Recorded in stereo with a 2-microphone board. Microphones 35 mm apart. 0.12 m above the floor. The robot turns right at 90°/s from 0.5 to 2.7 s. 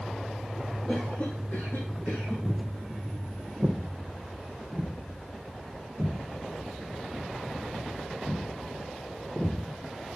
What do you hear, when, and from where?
0.9 s a cough: 10° left, 3.5 m; by 2.4 s 140° left, 3.5 m
2.5 s footsteps: 10° left (ahead or behind), 1.3 m; by 9.6 s 15° right (ahead or behind), 5 m